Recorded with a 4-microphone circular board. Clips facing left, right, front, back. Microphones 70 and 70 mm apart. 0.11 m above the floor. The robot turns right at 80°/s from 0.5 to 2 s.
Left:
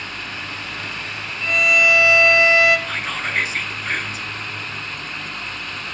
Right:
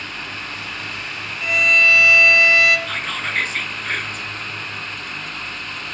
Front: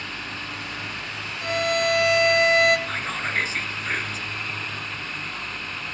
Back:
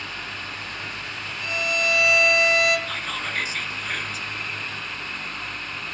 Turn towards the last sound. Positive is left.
turn(degrees=10)